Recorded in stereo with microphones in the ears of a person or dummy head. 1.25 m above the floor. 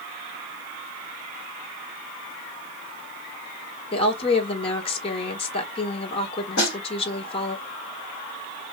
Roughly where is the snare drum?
Left.